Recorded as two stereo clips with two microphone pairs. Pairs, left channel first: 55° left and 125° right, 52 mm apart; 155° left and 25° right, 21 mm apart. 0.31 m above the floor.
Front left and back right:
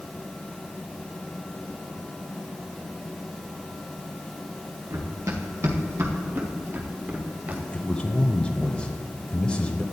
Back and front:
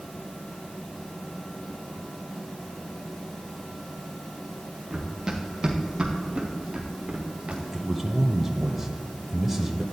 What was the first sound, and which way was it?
Running footsteps, 105° right.